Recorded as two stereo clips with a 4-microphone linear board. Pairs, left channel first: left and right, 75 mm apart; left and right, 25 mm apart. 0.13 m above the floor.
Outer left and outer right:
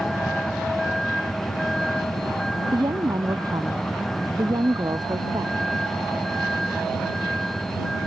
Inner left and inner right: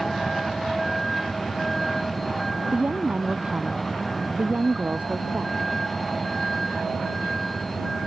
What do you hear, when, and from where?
0.0 s a vehicle: 5° left (ahead or behind)
2.7 s a woman speaking: 60° right (ahead or behind)